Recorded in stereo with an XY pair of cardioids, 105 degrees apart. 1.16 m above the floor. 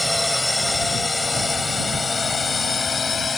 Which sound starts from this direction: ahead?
A drone, at 0.0 s.